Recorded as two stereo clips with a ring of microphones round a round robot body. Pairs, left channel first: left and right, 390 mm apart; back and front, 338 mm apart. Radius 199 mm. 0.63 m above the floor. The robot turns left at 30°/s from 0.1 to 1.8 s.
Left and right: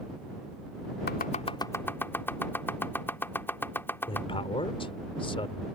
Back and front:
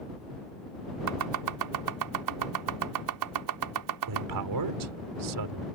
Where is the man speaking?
15° left.